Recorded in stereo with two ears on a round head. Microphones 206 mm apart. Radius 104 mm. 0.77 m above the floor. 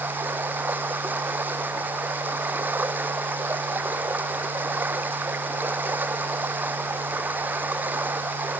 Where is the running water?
5° right (ahead or behind).